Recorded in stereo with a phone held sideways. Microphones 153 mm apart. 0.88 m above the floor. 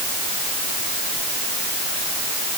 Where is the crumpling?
No crumpling in this recording.